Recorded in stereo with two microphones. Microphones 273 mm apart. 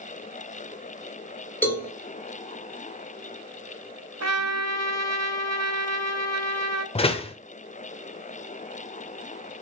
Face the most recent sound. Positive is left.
turn(degrees=20)  # may be behind; listen again after turning